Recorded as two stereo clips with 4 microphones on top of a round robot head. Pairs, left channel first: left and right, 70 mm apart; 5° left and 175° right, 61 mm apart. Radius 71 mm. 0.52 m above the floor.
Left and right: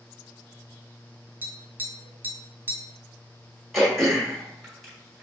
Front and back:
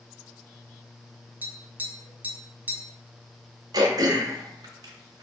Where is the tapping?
135° right, 0.9 m.